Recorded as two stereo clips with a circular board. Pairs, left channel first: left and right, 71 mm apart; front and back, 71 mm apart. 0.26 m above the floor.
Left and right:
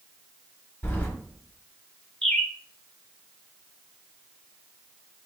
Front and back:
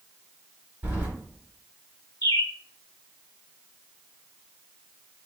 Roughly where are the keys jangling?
Behind left.